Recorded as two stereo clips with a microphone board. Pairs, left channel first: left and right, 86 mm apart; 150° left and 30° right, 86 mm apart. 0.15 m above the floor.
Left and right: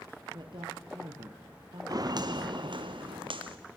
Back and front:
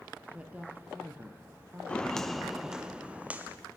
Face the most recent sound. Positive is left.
turn(degrees=-100)